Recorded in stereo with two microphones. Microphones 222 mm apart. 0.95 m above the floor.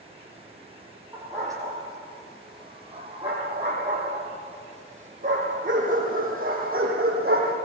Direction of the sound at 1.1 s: 10° right (ahead or behind).